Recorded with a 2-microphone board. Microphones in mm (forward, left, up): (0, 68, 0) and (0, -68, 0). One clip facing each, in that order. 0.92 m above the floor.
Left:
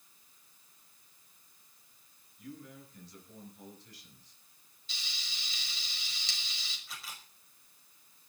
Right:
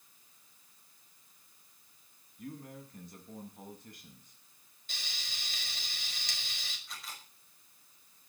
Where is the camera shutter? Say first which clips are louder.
Even; centre (ahead or behind), 5.5 m.